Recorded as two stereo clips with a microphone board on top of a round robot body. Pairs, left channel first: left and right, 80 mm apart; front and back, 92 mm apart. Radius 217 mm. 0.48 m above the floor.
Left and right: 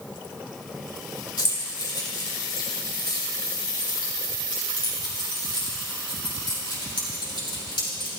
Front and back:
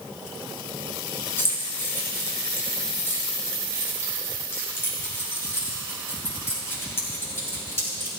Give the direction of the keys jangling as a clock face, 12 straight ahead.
10 o'clock.